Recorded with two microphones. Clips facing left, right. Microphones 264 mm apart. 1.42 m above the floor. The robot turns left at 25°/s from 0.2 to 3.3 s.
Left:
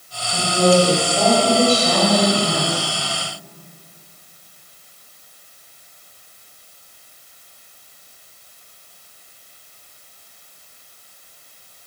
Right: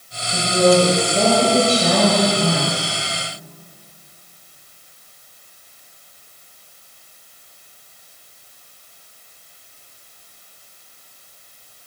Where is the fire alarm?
No fire alarm in this recording.